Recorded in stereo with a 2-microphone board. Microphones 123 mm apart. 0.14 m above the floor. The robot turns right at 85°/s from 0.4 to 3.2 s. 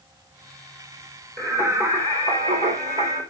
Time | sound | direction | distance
1.4 | singing | 160° left | 4 m